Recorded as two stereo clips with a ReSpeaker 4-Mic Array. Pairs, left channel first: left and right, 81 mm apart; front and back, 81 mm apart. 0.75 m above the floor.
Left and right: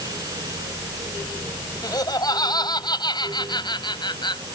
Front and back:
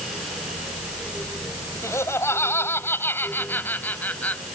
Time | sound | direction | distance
1.8 | laughter | 55° left | ?